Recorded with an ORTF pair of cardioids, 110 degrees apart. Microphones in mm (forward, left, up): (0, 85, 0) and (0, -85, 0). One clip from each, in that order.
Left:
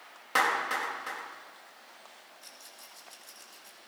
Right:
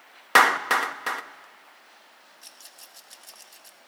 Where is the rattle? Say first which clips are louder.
Right 4 dB; 40° right, 2.5 m.